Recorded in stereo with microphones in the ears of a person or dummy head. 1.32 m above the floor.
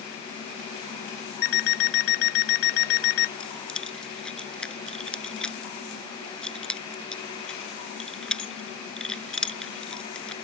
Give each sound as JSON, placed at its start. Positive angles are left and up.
{"t": 1.4, "sound": "an alarm clock", "side_deg": 70}
{"t": 3.4, "sound": "keys jangling", "side_deg": 10}